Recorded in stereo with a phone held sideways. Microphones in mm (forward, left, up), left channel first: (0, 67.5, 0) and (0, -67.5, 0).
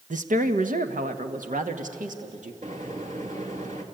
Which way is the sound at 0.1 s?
70° right (ahead or behind).